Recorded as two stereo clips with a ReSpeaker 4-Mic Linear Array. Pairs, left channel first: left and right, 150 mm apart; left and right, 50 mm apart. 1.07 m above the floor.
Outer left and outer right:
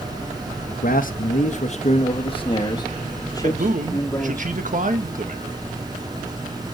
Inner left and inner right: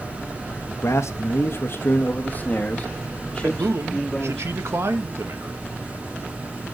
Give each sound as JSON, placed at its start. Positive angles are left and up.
{"t": 0.8, "sound": "a man speaking", "side_deg": 70, "distance_m": 1.0}
{"t": 3.4, "sound": "a man speaking", "side_deg": -60, "distance_m": 1.7}